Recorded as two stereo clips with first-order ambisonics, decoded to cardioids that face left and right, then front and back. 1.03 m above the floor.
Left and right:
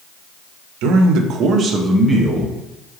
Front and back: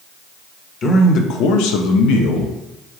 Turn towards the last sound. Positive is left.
turn(degrees=10)